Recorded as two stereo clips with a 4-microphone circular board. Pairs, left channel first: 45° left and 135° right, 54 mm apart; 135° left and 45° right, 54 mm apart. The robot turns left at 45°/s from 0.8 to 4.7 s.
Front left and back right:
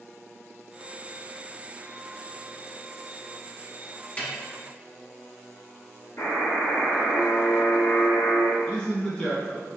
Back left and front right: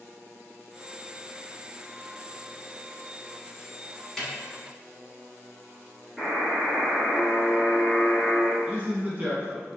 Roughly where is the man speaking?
Ahead.